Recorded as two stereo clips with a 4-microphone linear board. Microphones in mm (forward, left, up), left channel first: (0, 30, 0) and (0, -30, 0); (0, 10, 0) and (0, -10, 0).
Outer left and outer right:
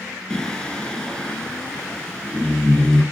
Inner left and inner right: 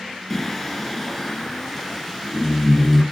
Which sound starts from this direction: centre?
Singing, at 0.3 s.